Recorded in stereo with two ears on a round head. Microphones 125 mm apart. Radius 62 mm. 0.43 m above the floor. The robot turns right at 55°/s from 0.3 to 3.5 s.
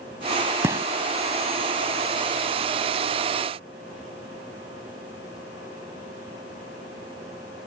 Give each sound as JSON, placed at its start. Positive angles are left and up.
{"t": 0.6, "sound": "a gunshot", "side_deg": -20}